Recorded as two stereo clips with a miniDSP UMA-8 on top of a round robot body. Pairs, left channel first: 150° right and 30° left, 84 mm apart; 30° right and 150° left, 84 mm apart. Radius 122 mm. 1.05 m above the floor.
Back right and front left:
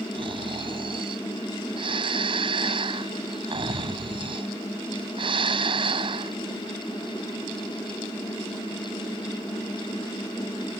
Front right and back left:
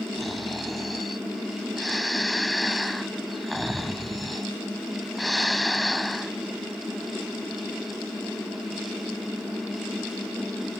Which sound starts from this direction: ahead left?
Snoring, at 0.1 s.